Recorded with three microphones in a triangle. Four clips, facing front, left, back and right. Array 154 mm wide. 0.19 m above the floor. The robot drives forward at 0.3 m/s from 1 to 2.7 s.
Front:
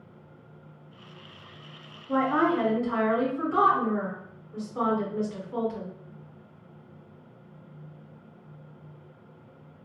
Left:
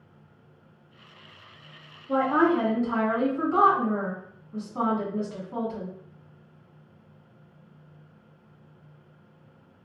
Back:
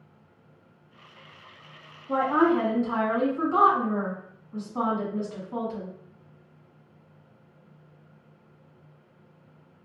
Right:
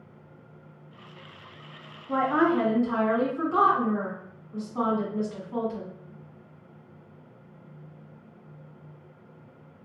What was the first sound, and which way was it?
A woman speaking, 170° right.